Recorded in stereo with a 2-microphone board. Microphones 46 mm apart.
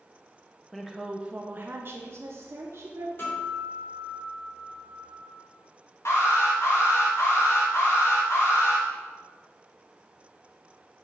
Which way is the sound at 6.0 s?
70° left (ahead or behind).